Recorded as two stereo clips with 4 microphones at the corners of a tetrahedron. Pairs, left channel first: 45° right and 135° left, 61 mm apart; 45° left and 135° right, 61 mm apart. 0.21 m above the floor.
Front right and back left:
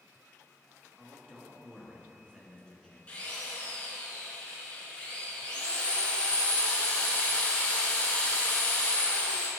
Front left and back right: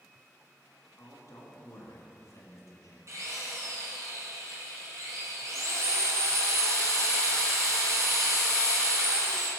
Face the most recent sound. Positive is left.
turn(degrees=-110)